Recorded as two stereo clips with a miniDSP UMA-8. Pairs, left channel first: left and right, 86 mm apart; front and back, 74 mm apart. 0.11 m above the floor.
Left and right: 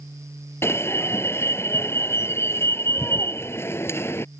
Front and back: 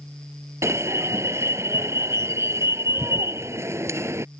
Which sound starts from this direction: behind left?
An alarm, at 0.6 s.